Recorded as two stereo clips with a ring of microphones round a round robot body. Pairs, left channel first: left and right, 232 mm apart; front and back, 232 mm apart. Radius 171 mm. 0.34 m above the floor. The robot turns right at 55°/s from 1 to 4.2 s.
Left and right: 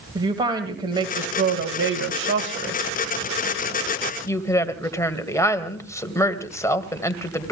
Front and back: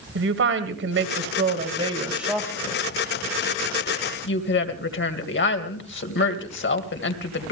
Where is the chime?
I don't hear a chime.